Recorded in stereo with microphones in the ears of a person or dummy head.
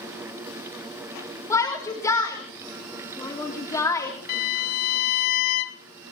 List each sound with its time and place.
1.5 s a shout: 15° left (ahead or behind), 3.5 m
4.3 s a violin: 45° left (ahead or behind), 0.9 m